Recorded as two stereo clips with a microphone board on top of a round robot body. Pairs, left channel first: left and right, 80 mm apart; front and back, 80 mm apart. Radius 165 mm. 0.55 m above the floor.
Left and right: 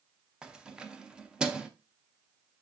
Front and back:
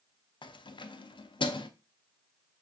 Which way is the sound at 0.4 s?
10° right.